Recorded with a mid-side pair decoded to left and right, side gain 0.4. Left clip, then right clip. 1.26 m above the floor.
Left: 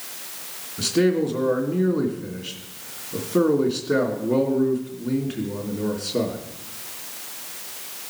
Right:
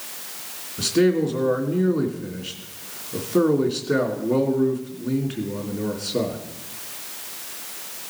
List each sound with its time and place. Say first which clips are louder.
0.8 s a man speaking: right 1 dB; straight ahead, 2.5 m